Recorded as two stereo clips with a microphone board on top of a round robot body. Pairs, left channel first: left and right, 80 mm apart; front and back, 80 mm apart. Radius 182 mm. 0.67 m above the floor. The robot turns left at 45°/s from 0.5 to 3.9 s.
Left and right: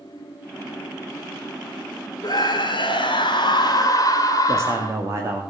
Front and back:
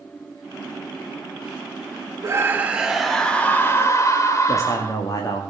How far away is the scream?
About 2.5 m.